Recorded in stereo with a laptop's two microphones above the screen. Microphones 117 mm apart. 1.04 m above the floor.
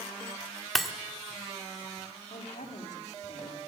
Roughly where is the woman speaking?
Left.